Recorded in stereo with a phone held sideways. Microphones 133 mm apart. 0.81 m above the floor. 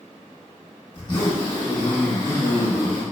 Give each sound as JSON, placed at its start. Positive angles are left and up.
{"t": 0.9, "sound": "a zipper", "side_deg": 30, "distance_m": 0.9}